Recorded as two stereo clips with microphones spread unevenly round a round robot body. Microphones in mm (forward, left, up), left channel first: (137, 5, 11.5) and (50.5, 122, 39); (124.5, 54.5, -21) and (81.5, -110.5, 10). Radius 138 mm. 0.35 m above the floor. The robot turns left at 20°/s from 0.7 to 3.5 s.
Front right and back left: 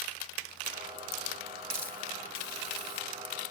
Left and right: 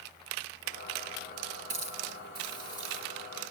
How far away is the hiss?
About 3.5 m.